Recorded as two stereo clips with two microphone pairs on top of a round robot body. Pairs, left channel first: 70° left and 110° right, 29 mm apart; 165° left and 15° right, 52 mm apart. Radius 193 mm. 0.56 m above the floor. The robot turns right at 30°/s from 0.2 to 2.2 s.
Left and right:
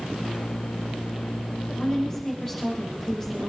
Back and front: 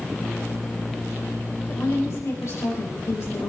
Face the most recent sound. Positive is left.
turn(degrees=145)